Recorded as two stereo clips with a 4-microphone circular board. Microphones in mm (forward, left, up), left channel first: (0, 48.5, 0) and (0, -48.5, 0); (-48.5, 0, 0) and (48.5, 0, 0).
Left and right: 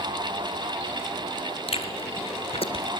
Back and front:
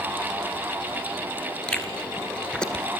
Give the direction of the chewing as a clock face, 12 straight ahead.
9 o'clock.